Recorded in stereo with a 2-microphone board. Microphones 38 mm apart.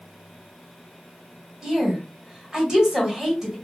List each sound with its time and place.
1.6 s a woman speaking: 10° right (ahead or behind), 1.9 m